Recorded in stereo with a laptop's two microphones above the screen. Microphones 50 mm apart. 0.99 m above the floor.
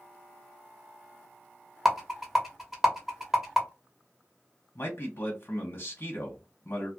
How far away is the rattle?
About 1.0 m.